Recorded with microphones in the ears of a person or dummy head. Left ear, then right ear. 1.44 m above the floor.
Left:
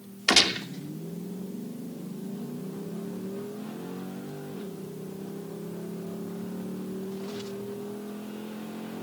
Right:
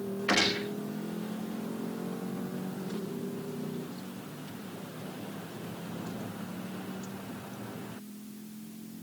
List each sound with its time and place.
0.3 s a gunshot: 85° left, 3 m